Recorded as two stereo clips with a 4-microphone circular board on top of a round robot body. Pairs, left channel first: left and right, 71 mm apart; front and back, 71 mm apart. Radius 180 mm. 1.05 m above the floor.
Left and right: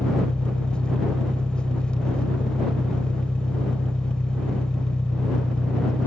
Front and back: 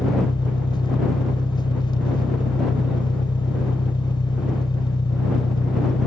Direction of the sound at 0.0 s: 10° left.